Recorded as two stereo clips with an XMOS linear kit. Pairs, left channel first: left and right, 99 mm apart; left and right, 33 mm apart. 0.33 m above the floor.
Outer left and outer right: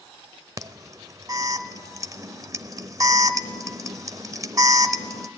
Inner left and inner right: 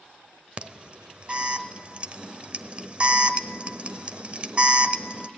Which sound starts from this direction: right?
An alarm, at 0.6 s.